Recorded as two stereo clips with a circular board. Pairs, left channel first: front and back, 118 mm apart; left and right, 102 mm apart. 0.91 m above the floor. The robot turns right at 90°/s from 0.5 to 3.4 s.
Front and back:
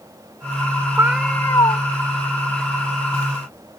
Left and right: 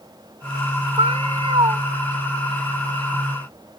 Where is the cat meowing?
110° right; by 1.8 s 35° right.